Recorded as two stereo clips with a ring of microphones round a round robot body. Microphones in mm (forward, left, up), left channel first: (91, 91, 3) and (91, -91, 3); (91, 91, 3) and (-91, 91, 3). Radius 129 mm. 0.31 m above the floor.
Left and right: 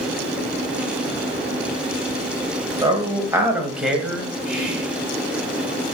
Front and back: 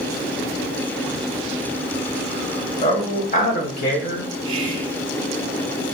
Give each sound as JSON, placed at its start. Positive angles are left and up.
{"t": 2.8, "sound": "a man speaking", "azimuth_deg": -45, "distance_m": 1.0}
{"t": 4.5, "sound": "whispering", "azimuth_deg": -170, "distance_m": 0.9}